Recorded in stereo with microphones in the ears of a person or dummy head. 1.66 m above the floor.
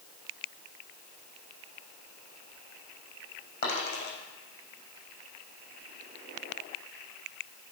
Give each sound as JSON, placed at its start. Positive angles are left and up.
{"t": 3.6, "sound": "a dropped coin", "side_deg": 65, "distance_m": 7.0}